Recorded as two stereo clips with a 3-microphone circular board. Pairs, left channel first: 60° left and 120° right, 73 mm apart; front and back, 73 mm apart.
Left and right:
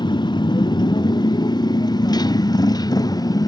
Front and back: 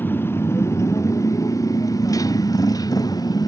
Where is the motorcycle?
65° left; by 3.5 s 30° left.